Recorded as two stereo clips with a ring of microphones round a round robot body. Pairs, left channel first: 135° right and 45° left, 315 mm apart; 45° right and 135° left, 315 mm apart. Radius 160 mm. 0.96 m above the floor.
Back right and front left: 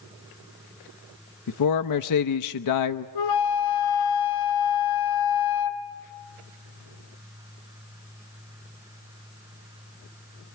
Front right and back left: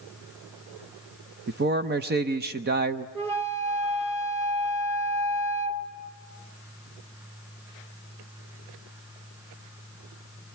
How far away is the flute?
About 2.5 m.